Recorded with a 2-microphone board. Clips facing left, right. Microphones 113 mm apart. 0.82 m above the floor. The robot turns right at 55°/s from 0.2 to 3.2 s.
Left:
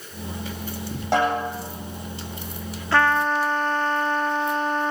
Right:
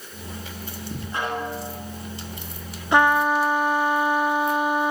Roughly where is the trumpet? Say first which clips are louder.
Right 2 dB; centre.